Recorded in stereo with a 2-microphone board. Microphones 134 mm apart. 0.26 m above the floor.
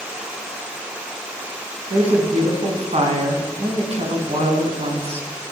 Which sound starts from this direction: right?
A woman speaking, at 1.9 s.